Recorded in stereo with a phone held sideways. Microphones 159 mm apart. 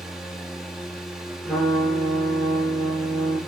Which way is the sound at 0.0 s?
Centre (ahead or behind).